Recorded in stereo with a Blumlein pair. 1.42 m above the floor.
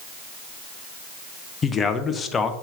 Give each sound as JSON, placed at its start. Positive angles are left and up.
{"t": 1.6, "sound": "a man speaking", "azimuth_deg": 20, "distance_m": 0.8}